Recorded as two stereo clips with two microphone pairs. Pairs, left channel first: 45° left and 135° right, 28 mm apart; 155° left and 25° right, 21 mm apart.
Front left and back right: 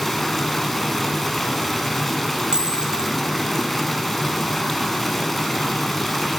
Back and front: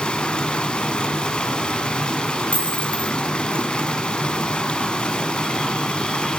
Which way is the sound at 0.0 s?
125° left.